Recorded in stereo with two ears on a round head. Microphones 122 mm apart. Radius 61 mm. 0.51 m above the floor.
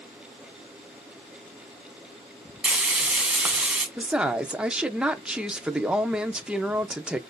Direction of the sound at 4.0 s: 5° right (ahead or behind).